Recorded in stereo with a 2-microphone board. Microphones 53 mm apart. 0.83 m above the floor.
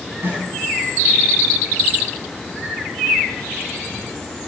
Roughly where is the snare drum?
Right.